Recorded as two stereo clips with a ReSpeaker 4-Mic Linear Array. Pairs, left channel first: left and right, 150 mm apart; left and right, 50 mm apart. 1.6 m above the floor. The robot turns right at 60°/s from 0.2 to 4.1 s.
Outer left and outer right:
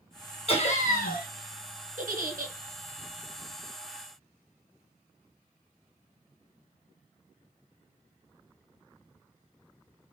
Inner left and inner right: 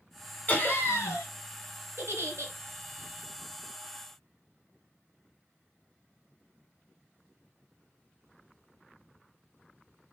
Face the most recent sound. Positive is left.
turn(degrees=10)